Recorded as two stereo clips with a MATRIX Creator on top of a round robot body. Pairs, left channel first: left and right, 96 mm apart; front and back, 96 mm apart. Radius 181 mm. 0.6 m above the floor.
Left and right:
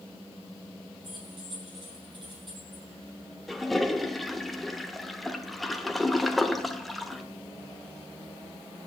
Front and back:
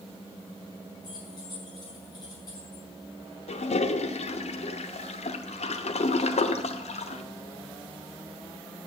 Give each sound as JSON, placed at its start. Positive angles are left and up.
{"t": 1.0, "sound": "keys jangling", "azimuth_deg": -50, "distance_m": 5.5}
{"t": 3.5, "sound": "a toilet flushing", "azimuth_deg": 0, "distance_m": 1.0}